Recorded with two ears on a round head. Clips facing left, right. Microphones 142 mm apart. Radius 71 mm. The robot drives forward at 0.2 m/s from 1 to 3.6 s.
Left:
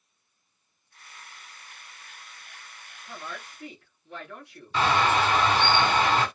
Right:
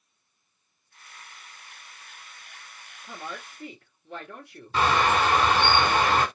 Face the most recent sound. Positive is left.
turn(degrees=-55)  # may be behind; listen again after turning